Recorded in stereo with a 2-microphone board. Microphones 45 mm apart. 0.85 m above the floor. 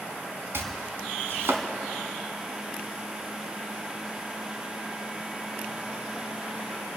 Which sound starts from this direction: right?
Chopping, at 0.5 s.